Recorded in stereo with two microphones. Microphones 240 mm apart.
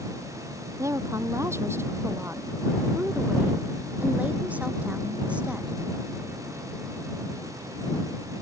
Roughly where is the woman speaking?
Centre.